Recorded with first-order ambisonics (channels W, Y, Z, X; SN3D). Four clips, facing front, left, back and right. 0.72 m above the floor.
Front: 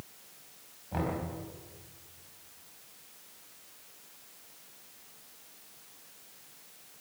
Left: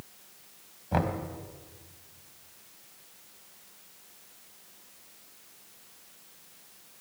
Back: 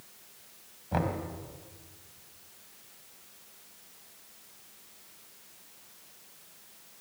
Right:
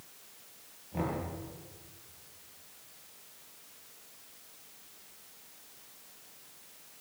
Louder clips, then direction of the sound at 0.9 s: Left 6 dB, back 3 dB; 110° left.